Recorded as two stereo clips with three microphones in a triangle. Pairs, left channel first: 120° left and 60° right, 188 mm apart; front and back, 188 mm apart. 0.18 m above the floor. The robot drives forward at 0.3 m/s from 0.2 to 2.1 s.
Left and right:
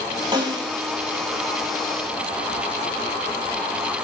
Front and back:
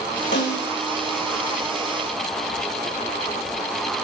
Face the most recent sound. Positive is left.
turn(degrees=5)